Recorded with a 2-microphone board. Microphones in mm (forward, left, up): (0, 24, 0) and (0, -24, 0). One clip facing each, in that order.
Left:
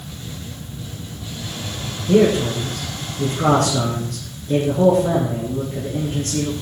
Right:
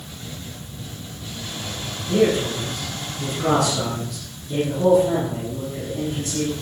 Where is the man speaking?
60° left (ahead or behind), 6 m.